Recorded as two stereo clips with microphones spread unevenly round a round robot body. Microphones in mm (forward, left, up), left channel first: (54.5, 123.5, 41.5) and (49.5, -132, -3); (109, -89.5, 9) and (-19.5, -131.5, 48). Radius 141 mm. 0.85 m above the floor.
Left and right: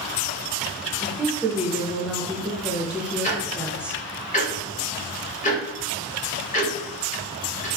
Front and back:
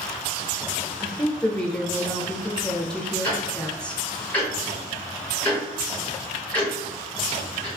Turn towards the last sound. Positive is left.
turn(degrees=40)